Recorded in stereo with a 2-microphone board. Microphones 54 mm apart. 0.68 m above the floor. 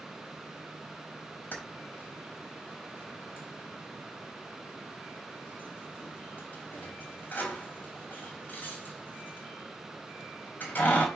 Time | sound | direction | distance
1.5 | keys jangling | 35° left (ahead or behind) | 3.5 m